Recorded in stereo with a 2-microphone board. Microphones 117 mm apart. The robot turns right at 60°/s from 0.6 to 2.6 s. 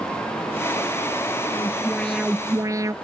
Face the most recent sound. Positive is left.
turn(degrees=-150)